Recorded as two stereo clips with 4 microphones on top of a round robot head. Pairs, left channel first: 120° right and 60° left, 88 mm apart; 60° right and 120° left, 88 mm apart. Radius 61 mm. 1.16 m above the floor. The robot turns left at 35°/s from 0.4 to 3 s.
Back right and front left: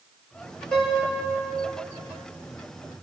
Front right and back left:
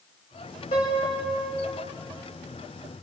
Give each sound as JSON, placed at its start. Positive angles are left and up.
{"t": 0.7, "sound": "a piano", "azimuth_deg": -40, "distance_m": 6.0}